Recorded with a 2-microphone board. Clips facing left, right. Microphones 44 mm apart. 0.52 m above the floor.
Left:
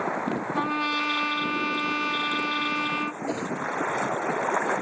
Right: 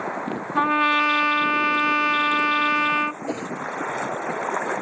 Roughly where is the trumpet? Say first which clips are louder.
Right 10 dB; right.